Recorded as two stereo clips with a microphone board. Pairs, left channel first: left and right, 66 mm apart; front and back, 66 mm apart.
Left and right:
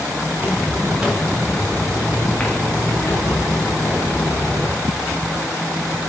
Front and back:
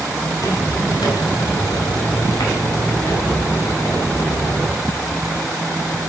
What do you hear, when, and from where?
0.3 s footsteps: 30° right, 2.5 m; by 4.8 s 50° left, 4 m